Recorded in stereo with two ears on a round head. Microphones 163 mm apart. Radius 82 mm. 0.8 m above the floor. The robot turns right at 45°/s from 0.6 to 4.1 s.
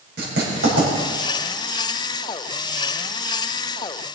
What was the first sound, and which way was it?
Writing, 65° right (ahead or behind).